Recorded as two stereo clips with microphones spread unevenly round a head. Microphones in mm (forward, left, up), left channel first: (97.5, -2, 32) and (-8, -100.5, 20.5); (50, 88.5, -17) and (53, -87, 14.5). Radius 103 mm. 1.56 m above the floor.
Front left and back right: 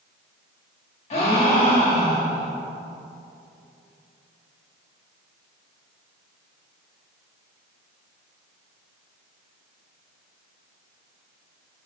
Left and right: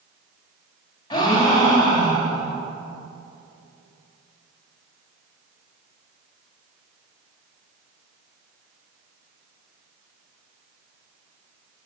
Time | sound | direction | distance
1.1 | a gasp | 20° left | 1.4 m